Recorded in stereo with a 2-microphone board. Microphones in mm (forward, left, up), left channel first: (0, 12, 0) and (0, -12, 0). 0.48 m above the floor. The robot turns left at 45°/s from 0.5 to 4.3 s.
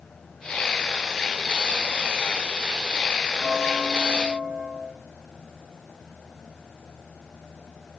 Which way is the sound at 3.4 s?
40° left.